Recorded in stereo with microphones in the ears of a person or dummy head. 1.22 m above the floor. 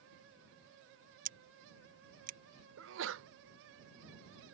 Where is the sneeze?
65° right (ahead or behind).